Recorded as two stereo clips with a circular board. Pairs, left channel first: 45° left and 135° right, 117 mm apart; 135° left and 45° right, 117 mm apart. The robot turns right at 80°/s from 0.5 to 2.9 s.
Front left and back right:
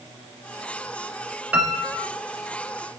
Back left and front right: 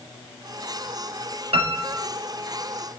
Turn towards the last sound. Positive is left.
turn(degrees=55)